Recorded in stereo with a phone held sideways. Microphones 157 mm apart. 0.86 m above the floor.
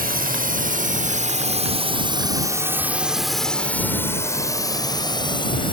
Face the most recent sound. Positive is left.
turn(degrees=35)  # may be behind; listen again after turning